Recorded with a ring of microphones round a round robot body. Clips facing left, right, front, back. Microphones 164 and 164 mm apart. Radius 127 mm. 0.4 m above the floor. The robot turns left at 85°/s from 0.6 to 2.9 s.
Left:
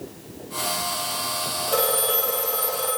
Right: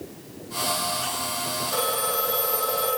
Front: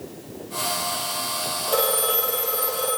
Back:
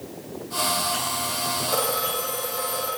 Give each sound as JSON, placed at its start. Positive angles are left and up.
{"t": 1.7, "sound": "a phone ringing", "azimuth_deg": 65, "distance_m": 8.0}